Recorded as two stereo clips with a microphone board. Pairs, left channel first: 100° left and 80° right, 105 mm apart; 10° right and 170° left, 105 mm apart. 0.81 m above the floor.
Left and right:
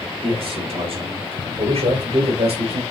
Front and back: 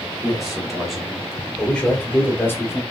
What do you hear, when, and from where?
0.2 s a man speaking: 105° right, 3.5 m; by 2.8 s 75° right, 2.5 m